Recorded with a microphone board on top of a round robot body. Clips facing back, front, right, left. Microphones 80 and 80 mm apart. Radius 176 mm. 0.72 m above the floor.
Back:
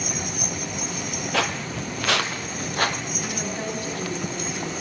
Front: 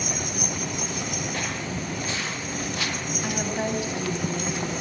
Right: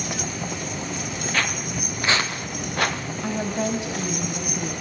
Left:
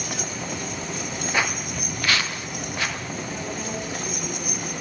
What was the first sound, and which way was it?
Footsteps, 165° left.